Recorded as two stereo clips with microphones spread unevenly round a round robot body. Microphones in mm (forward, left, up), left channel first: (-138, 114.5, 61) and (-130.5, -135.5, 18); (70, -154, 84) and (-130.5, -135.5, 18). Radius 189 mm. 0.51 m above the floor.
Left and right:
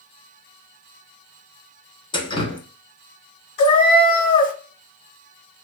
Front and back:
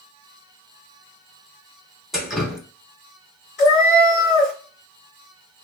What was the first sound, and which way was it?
Dripping, 160° left.